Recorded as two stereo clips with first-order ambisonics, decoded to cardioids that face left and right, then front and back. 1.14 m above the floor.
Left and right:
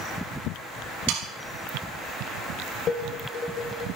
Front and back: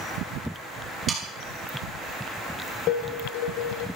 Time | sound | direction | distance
1.1 | sawing | 105° right | 5.5 m
2.9 | dishes clattering | 25° left | 3.5 m